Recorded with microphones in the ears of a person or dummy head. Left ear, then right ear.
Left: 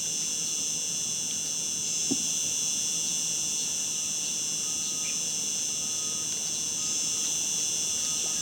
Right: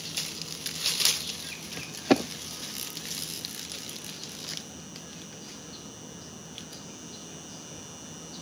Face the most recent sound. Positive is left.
turn(degrees=70)  # may be behind; listen again after turning